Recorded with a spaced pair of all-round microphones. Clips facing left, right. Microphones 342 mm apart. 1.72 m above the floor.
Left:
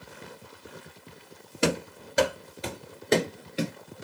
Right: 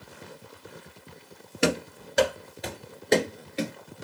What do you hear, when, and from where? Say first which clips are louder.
1.6 s running footsteps: right 1 dB; centre (ahead or behind), 2 m; by 3.7 s 15° left (ahead or behind), 1.7 m